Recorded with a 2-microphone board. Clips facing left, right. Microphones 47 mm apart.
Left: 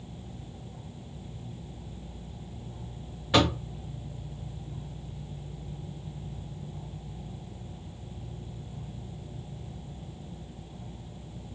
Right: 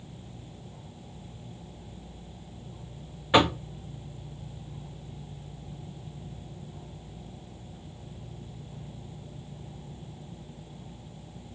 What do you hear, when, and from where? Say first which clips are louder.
3.3 s knocking: right 2 dB; 25° right (ahead or behind), 0.6 m